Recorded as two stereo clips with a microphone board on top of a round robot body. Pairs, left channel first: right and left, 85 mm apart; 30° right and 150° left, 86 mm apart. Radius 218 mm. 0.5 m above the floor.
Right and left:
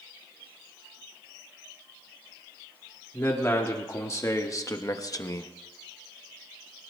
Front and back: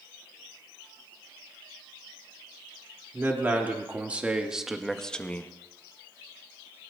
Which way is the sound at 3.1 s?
145° right.